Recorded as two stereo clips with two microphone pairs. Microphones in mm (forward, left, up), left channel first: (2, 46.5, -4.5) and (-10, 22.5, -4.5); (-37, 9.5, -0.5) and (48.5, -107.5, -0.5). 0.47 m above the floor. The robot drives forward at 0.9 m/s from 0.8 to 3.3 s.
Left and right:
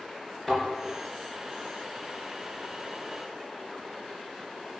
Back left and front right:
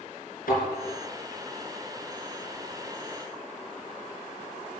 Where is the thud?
145° left, 4 m.